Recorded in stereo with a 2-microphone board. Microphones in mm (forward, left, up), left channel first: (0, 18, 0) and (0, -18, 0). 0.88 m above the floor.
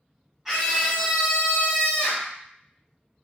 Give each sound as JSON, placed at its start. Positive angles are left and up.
{"t": 0.5, "sound": "a scream", "side_deg": -10, "distance_m": 0.8}